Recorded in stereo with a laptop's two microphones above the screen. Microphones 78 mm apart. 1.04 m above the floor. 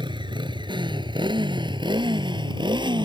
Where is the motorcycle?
85° right; by 3.0 s 75° right (ahead or behind).